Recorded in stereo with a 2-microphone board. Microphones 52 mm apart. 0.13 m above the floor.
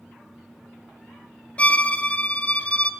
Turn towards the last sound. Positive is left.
turn(degrees=30)  # may be behind; listen again after turning